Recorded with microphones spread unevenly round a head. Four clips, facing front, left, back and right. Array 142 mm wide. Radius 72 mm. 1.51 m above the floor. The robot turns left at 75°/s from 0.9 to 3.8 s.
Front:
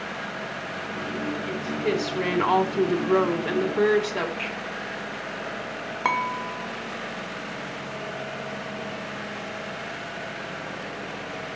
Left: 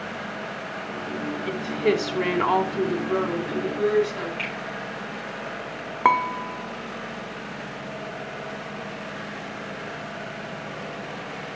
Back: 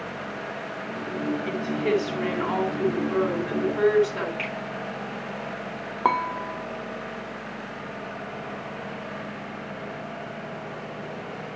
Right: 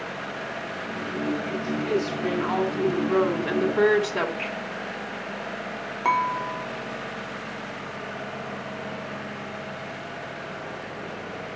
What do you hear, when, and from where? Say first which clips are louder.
1.5 s a woman speaking: left 3 dB, back 1 dB; 120° left, 3.5 m; by 4.3 s 55° right, 3.5 m
4.4 s a finger snap: right 1 dB, back 1 dB; 110° left, 8.5 m
6.0 s dishes clattering: left 3 dB, back 2 dB; 115° left, 0.7 m